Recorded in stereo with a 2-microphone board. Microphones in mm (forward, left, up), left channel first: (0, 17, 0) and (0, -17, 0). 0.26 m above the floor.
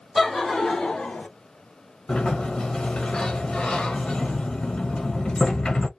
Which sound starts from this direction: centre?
Laughter, at 0.1 s.